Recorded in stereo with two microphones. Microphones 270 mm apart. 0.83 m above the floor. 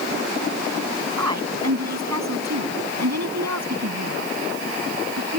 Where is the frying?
I don't hear frying.